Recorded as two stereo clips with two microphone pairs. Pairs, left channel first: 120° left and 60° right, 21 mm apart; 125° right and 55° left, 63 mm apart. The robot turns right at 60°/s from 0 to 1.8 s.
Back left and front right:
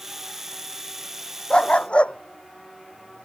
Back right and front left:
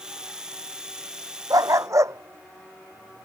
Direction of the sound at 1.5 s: 70° left.